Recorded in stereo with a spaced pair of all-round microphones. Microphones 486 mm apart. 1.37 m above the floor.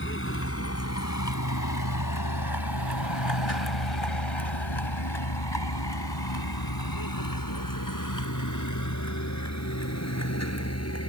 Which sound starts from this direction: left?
A vehicle, at 0.0 s.